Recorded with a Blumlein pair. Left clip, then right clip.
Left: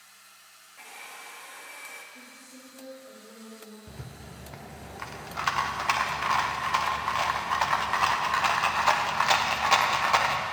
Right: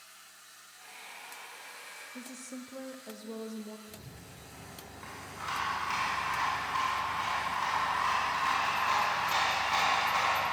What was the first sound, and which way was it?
A hair dryer, 45° left.